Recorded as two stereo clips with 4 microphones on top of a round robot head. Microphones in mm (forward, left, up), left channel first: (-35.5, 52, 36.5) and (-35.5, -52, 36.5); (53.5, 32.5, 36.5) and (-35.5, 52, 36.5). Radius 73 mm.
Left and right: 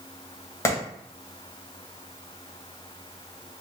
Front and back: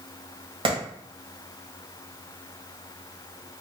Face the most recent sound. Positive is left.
turn(degrees=150)